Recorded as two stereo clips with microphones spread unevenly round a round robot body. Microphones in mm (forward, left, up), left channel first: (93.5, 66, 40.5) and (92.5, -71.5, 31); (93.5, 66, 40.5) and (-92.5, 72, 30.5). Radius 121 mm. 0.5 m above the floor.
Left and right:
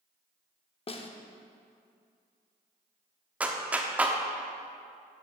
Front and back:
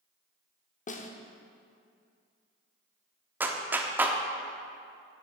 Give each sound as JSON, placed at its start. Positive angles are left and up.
{"t": 0.9, "sound": "a snare drum", "azimuth_deg": 45, "distance_m": 1.0}
{"t": 3.4, "sound": "a clap", "azimuth_deg": -135, "distance_m": 0.8}